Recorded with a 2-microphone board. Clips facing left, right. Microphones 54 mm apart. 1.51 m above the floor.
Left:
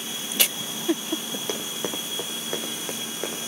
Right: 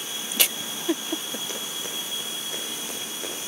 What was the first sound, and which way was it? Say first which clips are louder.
Running footsteps: left 4 dB; 50° left (ahead or behind).